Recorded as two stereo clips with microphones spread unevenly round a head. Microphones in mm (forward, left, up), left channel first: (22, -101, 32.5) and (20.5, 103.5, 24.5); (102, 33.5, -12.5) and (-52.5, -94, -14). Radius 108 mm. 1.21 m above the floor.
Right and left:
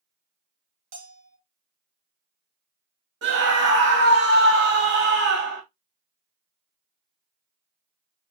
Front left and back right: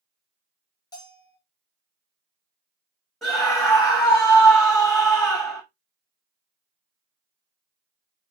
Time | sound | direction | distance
0.9 | a bell | 115° left | 1.4 m
3.2 | a scream | 125° left | 1.9 m